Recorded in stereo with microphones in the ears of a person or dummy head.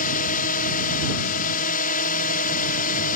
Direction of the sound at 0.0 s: 45° left (ahead or behind).